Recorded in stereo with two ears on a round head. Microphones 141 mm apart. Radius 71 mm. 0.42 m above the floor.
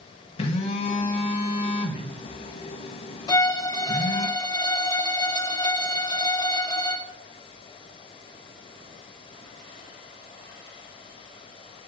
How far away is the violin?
About 0.8 m.